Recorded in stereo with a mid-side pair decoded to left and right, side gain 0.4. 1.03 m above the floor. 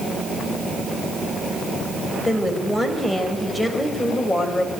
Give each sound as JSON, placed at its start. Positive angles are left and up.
{"t": 2.2, "sound": "a woman speaking", "azimuth_deg": 20, "distance_m": 4.5}